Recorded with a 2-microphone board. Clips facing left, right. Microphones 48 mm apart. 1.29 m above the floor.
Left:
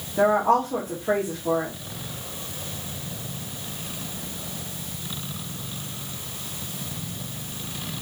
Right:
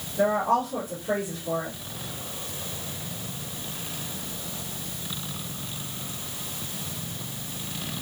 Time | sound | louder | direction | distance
0.2 | a woman speaking | left 3 dB | 70° left (ahead or behind) | 1.9 m